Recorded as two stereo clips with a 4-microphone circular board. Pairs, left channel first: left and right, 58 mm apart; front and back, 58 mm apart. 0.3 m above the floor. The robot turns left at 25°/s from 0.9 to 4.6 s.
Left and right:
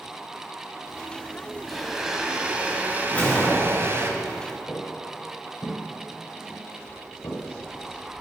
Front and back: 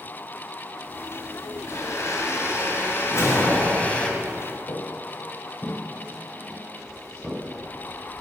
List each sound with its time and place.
1.7 s a blender: straight ahead, 1.4 m; by 4.1 s 65° right, 1.4 m
3.1 s a whoosh: 25° left, 3 m; by 4.0 s straight ahead, 3 m
4.7 s footsteps: 20° left, 2.5 m; by 7.4 s 85° left, 4 m